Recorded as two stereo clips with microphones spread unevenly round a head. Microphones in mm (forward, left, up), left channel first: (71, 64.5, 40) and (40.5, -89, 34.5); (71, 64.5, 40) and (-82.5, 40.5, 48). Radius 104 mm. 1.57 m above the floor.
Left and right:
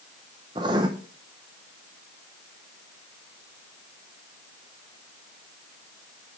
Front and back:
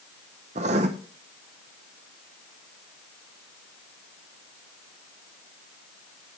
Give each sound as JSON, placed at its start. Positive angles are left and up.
{"t": 0.6, "sound": "writing", "azimuth_deg": -160, "distance_m": 0.7}